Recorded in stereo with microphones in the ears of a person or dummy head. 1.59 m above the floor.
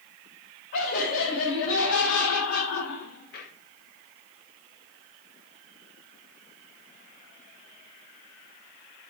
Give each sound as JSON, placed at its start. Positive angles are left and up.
{"t": 0.7, "sound": "laughter", "side_deg": 60, "distance_m": 2.5}